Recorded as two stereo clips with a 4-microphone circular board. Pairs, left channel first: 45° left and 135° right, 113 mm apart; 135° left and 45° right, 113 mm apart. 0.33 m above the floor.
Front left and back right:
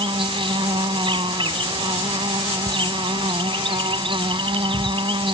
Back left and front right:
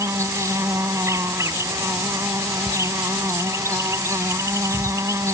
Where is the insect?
105° right.